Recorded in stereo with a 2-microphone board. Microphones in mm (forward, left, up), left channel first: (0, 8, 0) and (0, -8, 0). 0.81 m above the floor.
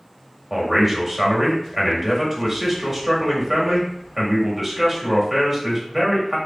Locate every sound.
0.5 s a man speaking: 20° right (ahead or behind), 1.5 m